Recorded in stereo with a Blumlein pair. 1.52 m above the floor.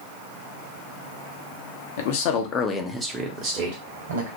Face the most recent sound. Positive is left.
turn(degrees=-55)